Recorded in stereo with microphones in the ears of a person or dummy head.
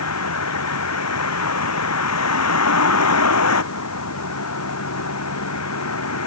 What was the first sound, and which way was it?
A vehicle, 80° left.